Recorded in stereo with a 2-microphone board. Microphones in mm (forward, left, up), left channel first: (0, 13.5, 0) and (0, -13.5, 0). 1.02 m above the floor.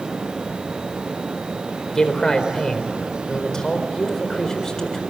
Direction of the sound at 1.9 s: 20° left (ahead or behind).